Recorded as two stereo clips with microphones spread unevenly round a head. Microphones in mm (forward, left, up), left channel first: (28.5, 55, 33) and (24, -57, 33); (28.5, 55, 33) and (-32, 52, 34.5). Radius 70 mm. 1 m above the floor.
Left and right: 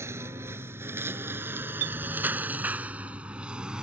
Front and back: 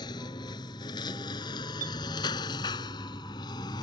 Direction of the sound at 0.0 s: 25° right.